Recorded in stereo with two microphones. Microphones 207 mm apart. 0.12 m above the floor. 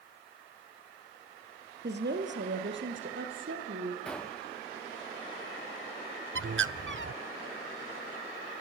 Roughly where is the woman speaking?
Right.